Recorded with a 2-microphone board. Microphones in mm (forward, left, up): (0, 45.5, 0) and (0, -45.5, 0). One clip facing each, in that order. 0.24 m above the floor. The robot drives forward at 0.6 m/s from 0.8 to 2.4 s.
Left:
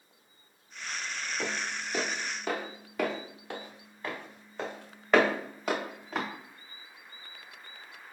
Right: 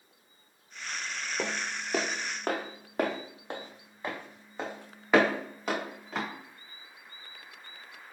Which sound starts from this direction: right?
Footsteps, at 1.4 s.